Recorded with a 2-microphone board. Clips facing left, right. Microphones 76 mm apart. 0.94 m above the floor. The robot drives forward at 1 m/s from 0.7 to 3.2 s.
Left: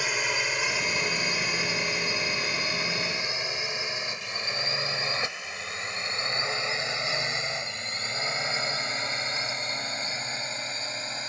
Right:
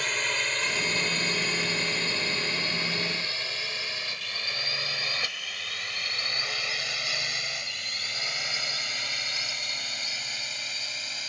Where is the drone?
10° left (ahead or behind); by 11.3 s 30° left (ahead or behind).